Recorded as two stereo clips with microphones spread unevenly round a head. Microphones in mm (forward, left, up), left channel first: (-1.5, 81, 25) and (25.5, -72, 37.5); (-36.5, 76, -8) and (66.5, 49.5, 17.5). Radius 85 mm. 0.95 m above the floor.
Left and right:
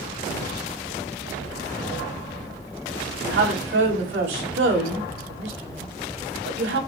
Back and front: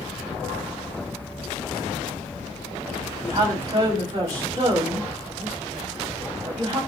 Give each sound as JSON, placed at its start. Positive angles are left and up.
{"t": 3.2, "sound": "a woman speaking", "azimuth_deg": -80, "distance_m": 6.0}